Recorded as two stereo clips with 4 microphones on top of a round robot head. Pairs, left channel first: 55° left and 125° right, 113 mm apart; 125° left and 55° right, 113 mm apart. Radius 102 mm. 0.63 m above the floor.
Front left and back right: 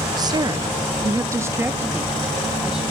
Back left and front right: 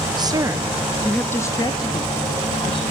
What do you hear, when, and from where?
0.2 s a woman speaking: 85° right, 0.6 m; by 2.8 s 155° left, 1.2 m